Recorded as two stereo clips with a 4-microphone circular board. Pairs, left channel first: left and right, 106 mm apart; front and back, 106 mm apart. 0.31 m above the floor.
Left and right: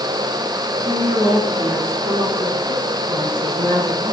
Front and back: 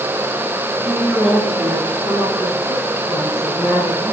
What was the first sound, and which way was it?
A woman speaking, 90° right.